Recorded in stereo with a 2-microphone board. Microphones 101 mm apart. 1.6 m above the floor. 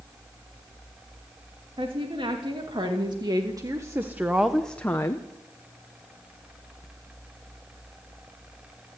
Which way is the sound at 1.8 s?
60° right (ahead or behind).